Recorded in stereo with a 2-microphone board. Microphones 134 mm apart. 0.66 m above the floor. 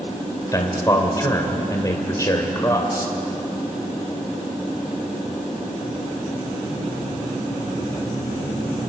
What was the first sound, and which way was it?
A man speaking, 25° left (ahead or behind).